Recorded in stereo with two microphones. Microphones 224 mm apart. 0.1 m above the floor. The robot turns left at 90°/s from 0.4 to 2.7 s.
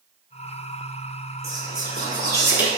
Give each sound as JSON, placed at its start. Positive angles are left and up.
{"t": 1.4, "sound": "whispering", "side_deg": -15, "distance_m": 1.1}